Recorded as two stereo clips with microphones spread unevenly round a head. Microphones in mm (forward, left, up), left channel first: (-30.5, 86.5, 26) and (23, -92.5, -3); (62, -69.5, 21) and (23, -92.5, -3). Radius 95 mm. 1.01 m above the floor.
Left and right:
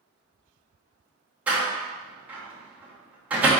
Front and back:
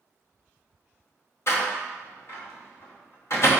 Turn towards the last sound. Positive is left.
turn(degrees=10)